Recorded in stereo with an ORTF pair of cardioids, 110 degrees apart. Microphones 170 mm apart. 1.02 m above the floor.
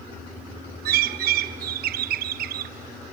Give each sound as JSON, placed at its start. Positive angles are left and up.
{"t": 0.8, "sound": "a bird", "azimuth_deg": -60, "distance_m": 0.7}